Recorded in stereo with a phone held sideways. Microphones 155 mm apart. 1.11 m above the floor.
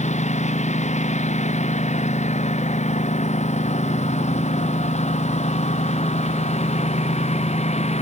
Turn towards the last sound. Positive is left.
turn(degrees=45)  # may be behind; listen again after turning